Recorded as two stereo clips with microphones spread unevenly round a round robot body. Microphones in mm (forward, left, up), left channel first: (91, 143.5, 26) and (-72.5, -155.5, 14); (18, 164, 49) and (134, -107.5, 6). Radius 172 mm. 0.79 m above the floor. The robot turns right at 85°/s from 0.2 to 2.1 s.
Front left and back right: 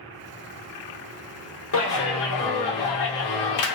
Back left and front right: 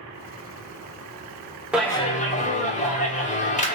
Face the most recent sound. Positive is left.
turn(degrees=45)